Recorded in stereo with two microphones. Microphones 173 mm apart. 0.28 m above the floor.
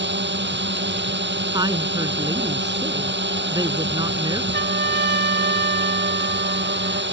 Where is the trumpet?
70° right (ahead or behind).